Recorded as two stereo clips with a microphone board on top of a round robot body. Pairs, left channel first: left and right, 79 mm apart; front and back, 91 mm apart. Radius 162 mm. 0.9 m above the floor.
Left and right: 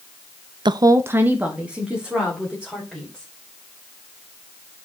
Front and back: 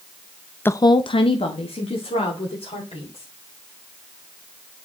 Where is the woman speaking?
70° right, 0.6 m; by 3.2 s 5° right, 4 m.